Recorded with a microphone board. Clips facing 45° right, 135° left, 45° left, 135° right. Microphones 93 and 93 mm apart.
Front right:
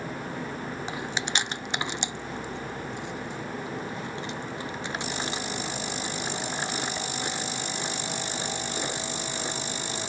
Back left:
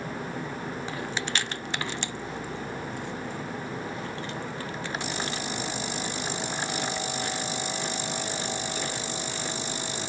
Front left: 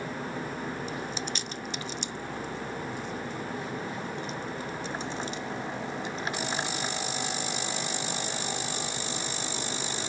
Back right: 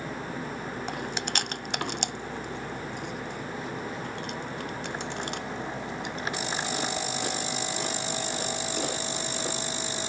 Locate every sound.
0.9 s chewing: 115° right